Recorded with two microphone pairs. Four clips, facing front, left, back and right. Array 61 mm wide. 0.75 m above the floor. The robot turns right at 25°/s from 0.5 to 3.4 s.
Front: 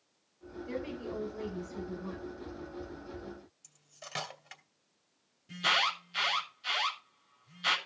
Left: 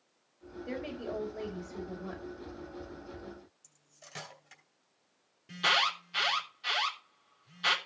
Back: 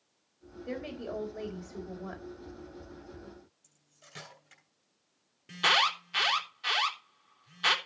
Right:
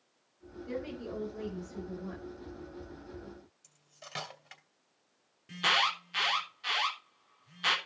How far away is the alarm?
About 3 m.